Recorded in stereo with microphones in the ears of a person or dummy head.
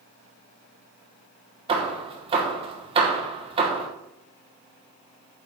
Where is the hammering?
30° right (ahead or behind), 1.1 m.